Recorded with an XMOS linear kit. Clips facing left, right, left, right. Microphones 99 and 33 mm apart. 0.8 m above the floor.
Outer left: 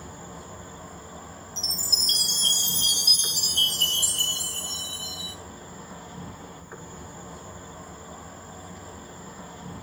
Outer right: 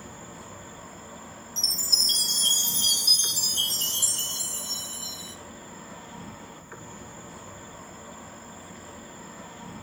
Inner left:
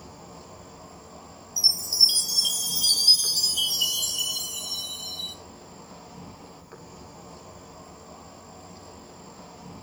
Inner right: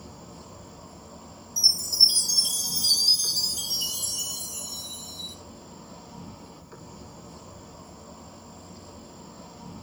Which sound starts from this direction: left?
A chime, at 1.6 s.